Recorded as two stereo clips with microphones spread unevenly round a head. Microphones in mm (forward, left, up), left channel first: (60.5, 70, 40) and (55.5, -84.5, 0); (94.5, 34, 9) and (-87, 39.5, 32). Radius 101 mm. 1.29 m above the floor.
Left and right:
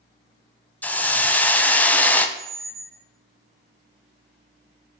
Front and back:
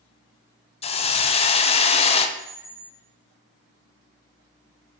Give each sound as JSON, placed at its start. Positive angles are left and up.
{"t": 0.8, "sound": "a hiss", "azimuth_deg": -5, "distance_m": 0.5}
{"t": 2.4, "sound": "a squeak", "azimuth_deg": -110, "distance_m": 0.5}